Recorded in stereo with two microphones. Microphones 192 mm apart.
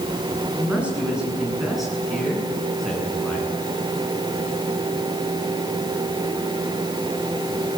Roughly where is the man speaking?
Centre.